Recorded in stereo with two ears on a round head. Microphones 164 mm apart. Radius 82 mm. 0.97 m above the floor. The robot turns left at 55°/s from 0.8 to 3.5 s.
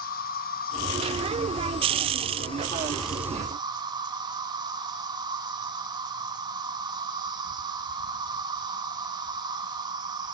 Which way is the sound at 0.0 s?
125° left.